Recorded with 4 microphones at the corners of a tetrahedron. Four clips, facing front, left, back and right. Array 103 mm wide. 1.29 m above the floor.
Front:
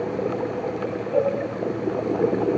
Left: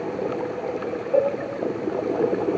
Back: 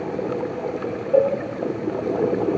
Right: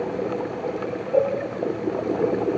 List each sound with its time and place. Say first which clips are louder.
1.1 s a cowbell: even, back 4 dB; 170° left, 2.0 m